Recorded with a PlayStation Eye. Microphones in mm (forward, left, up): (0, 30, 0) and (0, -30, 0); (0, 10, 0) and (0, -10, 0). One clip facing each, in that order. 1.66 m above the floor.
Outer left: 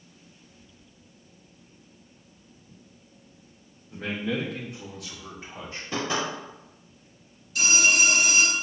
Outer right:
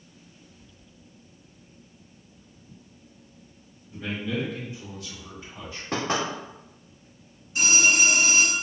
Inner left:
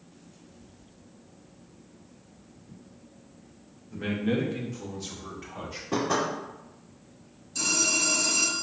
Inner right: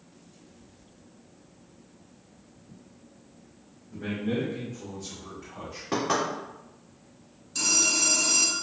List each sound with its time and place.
3.9 s a man speaking: 60° left (ahead or behind), 1.3 m; by 5.8 s 55° left (ahead or behind), 1.5 m
5.9 s knocking: 55° right (ahead or behind), 1.9 m
7.5 s a phone ringing: 25° right (ahead or behind), 1.1 m